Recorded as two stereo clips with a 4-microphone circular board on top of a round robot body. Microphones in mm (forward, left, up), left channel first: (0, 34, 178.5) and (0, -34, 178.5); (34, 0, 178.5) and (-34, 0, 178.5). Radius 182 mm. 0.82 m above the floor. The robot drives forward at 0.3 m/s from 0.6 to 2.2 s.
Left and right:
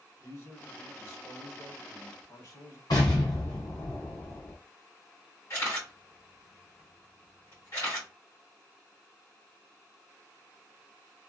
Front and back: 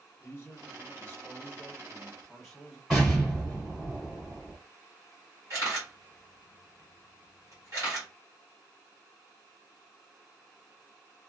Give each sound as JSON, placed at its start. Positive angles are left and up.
{"t": 0.2, "sound": "a man speaking", "azimuth_deg": 55, "distance_m": 1.2}
{"t": 2.9, "sound": "an explosion", "azimuth_deg": 95, "distance_m": 1.3}
{"t": 5.5, "sound": "a camera shutter", "azimuth_deg": 140, "distance_m": 1.2}